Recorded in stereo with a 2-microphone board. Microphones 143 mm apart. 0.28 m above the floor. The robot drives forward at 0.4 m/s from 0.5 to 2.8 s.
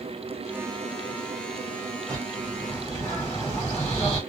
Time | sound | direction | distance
2.1 | a bird | 10° left (ahead or behind) | 1.4 m